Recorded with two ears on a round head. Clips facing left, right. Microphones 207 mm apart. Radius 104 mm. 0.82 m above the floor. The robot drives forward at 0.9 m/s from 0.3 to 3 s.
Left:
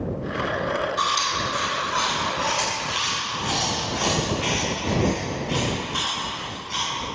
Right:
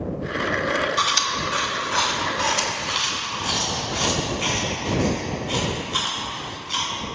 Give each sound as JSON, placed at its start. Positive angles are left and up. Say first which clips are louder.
{"t": 1.0, "sound": "chewing", "louder": "even", "side_deg": -75, "distance_m": 1.6}